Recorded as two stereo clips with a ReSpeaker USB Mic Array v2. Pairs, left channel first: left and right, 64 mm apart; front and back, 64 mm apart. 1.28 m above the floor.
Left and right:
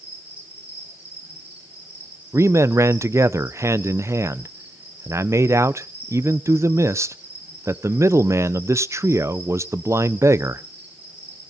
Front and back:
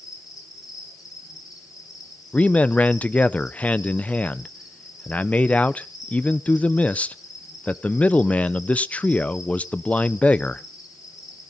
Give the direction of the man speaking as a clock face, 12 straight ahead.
2 o'clock.